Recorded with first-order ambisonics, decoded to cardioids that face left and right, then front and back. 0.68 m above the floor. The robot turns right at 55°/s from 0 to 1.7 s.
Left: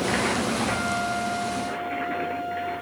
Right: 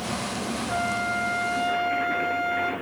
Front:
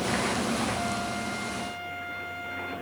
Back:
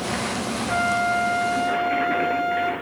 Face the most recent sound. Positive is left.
turn(degrees=-120)